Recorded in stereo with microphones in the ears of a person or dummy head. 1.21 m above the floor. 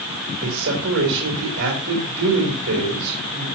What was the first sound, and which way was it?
A man speaking, 75° right (ahead or behind).